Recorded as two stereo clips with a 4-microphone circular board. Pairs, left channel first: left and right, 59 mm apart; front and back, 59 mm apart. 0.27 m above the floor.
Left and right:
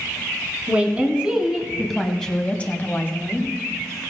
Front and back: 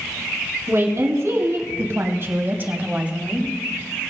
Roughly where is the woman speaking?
Behind right.